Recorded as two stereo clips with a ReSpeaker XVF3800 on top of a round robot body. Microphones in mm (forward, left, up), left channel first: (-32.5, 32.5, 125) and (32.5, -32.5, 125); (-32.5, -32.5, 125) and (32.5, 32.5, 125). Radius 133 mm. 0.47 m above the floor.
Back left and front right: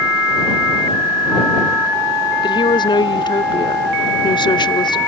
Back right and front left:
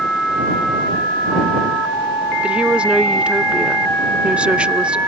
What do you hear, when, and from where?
2.4 s a woman speaking: 125° left